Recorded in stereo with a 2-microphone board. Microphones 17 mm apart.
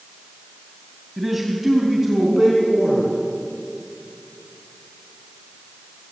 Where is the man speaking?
15° right (ahead or behind), 2.5 m.